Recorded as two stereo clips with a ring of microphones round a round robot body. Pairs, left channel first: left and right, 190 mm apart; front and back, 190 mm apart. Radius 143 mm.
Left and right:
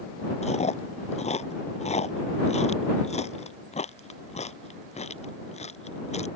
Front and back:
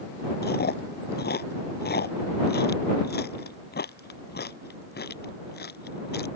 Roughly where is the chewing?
Ahead left.